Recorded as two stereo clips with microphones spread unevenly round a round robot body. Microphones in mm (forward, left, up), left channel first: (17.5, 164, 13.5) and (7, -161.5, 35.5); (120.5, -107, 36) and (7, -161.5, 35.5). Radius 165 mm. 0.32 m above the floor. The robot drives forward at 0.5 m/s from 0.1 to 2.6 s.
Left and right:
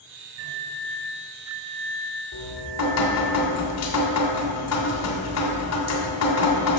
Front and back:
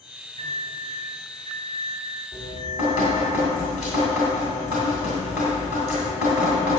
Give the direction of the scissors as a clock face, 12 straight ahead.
I don't hear scissors.